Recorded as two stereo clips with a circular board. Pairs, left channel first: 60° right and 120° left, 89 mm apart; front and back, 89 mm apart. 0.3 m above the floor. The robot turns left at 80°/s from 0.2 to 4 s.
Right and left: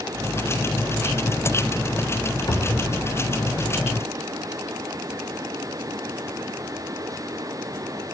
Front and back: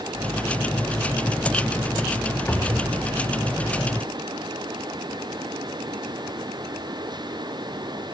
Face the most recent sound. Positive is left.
turn(degrees=175)